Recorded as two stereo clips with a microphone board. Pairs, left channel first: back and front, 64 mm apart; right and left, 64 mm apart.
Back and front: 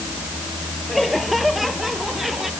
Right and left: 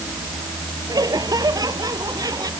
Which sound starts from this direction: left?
Laughter, at 0.9 s.